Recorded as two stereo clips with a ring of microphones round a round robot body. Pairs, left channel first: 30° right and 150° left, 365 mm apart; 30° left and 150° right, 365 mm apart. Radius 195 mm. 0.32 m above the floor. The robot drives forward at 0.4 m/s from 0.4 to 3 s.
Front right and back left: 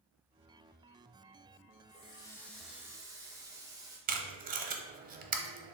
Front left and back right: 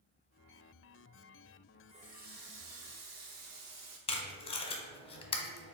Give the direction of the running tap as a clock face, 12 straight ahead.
3 o'clock.